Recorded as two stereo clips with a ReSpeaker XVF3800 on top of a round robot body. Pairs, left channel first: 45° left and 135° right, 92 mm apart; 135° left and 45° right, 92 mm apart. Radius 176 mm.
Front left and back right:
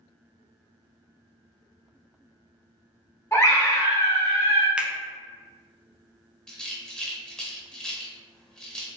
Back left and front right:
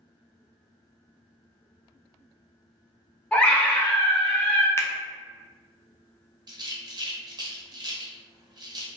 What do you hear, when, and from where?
3.3 s a scream: 70° left, 1.2 m
4.8 s a finger snap: 155° left, 0.6 m
6.5 s a rattle: 35° right, 0.8 m